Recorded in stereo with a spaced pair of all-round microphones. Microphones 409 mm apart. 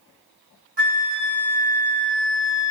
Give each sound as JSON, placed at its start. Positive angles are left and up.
{"t": 0.8, "sound": "a flute", "side_deg": -80, "distance_m": 0.9}